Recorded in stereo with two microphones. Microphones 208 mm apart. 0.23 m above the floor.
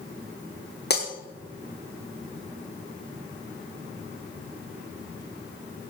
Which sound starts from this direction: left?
Breaking glass, at 0.9 s.